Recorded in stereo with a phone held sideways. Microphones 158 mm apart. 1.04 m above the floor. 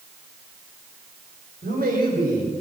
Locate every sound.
1.6 s a man speaking: 80° right, 4.5 m